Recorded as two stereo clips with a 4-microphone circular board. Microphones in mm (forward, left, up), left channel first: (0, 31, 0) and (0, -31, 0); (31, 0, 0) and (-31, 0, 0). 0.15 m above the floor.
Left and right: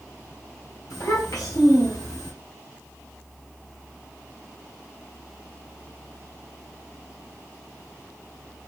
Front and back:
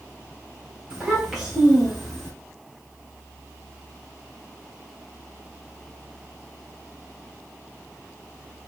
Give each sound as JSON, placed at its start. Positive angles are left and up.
{"t": 0.9, "sound": "a child speaking", "azimuth_deg": 105, "distance_m": 2.0}